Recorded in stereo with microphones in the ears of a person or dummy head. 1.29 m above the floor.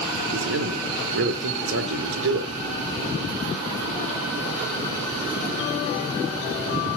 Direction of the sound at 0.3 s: 60° right (ahead or behind).